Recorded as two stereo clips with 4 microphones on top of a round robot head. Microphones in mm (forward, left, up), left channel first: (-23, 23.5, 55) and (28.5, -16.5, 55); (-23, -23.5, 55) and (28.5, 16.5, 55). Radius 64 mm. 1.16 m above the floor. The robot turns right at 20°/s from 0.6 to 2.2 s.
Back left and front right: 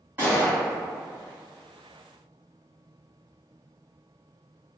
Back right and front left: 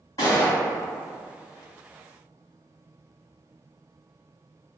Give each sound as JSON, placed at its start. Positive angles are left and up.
{"t": 0.2, "sound": "a gunshot", "azimuth_deg": -105, "distance_m": 1.4}